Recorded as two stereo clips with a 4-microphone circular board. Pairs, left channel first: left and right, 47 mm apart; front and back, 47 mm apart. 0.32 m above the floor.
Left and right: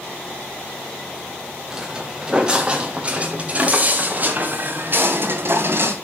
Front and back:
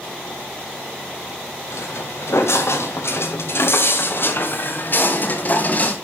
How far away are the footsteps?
About 3.5 m.